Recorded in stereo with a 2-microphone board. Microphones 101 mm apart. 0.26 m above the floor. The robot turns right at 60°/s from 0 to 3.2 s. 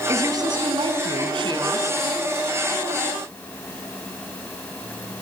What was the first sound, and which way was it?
A woman speaking, 145° right.